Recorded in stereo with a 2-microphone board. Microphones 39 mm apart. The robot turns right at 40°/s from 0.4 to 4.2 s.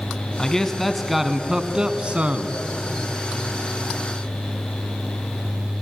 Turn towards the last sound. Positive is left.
turn(degrees=-55)